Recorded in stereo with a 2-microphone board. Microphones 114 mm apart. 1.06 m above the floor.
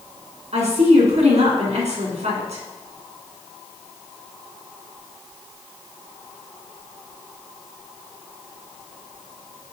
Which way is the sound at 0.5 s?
75° right (ahead or behind).